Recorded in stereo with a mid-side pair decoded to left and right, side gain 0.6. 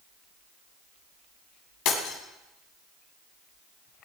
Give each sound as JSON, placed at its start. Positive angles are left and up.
{"t": 1.9, "sound": "breaking glass", "azimuth_deg": 65, "distance_m": 3.0}